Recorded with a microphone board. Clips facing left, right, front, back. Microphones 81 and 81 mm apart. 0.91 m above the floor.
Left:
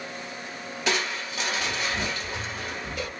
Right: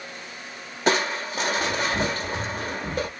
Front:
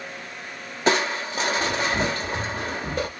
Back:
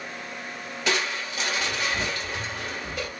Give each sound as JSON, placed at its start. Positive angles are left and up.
{"t": 0.9, "sound": "crushing", "azimuth_deg": -45, "distance_m": 0.9}